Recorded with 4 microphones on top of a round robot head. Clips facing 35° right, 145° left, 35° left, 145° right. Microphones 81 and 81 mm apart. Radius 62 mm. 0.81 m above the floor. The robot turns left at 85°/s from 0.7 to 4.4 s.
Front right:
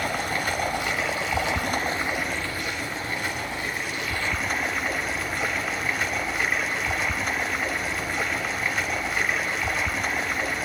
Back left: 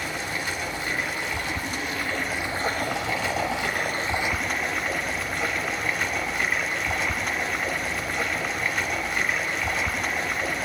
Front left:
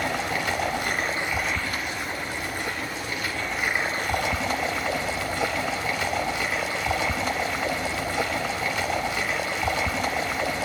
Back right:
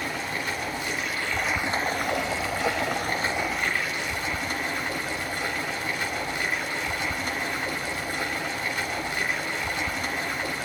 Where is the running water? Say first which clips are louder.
Front right 4 dB, front left 4 dB; 10° left, 2 m; by 10.7 s 55° left, 2 m.